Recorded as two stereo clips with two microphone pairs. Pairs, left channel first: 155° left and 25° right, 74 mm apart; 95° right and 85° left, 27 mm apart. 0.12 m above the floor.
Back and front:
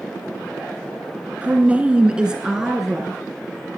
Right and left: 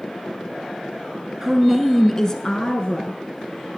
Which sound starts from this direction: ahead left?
A woman speaking, at 1.4 s.